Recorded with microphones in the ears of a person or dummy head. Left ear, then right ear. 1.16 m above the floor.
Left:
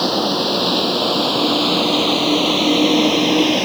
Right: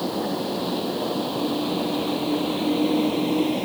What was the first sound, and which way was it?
A vehicle, 55° left (ahead or behind).